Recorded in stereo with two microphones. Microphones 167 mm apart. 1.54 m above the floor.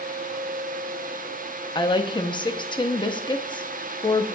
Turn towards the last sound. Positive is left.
turn(degrees=30)  # may be behind; listen again after turning